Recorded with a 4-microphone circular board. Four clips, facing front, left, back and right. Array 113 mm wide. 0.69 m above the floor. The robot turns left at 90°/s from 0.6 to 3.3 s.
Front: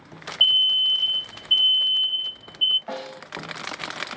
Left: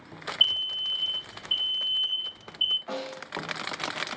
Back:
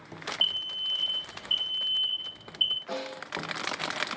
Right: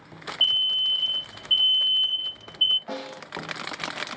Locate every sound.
0.4 s an alarm: 175° right, 2.0 m; by 2.8 s 15° right, 2.0 m
2.9 s a snare drum: 10° right, 1.1 m; by 3.2 s 40° right, 1.1 m